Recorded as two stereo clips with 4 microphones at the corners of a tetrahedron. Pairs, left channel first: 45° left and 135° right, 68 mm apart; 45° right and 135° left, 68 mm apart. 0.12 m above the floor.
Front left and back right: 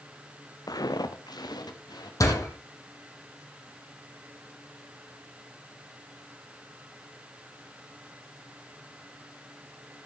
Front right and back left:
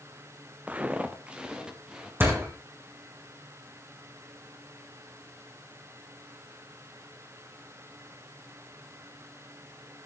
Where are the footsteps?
70° left, 1.2 m; by 2.1 s 55° left, 3 m.